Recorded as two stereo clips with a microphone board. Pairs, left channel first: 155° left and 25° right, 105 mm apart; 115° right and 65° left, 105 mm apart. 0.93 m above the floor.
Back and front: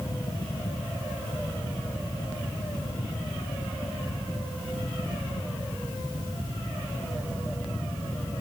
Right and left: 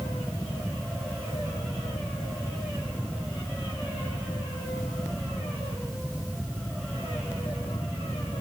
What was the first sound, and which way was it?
Only background noise.